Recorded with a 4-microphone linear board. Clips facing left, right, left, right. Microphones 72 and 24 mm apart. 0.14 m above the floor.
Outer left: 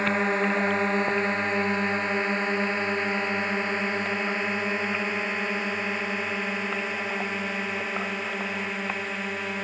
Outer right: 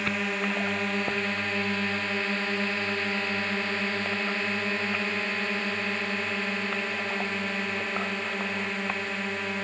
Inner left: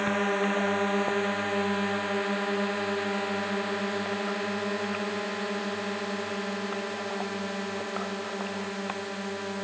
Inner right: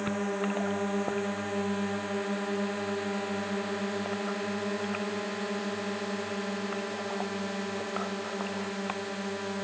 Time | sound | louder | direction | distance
0.0 | a drone | outer left 5 dB, inner left 5 dB | 30° left (ahead or behind) | ?